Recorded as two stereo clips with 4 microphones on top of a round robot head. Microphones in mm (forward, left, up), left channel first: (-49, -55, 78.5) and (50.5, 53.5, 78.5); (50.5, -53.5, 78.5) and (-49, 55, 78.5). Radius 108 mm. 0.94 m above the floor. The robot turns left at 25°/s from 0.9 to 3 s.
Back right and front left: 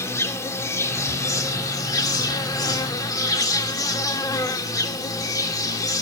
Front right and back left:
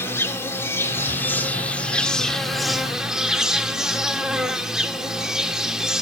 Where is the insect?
95° right, 1.4 m; by 6.0 s 145° right, 1.4 m.